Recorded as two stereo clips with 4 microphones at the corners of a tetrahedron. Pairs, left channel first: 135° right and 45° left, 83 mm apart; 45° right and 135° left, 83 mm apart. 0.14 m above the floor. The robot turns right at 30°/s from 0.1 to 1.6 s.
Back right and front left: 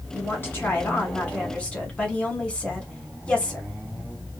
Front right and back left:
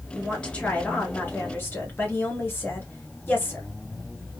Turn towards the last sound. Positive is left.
turn(degrees=-75)